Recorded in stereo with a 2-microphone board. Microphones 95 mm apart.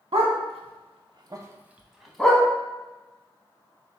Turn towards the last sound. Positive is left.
turn(degrees=10)  # may be behind; listen again after turning